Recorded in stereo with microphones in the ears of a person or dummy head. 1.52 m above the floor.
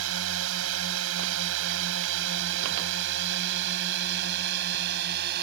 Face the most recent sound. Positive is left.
turn(degrees=-60)  # may be behind; listen again after turning